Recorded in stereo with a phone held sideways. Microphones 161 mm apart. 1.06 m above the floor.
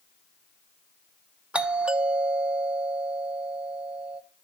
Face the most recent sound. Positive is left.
turn(degrees=-5)  # may be behind; listen again after turning